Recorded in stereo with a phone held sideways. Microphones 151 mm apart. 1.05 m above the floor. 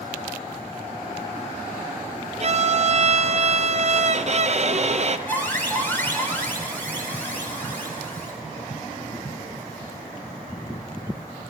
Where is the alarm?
15° left (ahead or behind), 4 m.